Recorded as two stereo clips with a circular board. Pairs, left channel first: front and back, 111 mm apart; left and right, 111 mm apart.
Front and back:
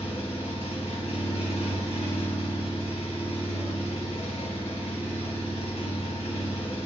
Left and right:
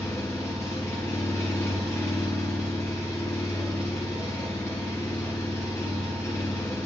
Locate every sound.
0.0 s an engine running: 25° left, 0.7 m